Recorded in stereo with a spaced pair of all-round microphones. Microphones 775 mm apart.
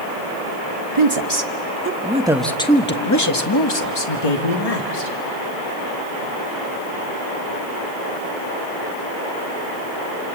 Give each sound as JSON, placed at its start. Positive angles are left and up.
{"t": 0.9, "sound": "a woman speaking", "side_deg": -35, "distance_m": 1.7}